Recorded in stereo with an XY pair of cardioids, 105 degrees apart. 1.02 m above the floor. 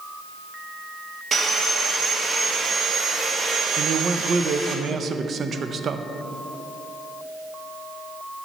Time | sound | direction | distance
1.3 | sawing | 40° right | 1.0 m
3.8 | a man speaking | 50° right | 0.5 m